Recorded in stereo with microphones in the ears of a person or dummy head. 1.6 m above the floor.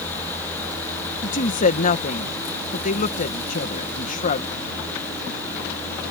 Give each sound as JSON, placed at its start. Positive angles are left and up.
{"t": 1.2, "sound": "a woman speaking", "side_deg": 40}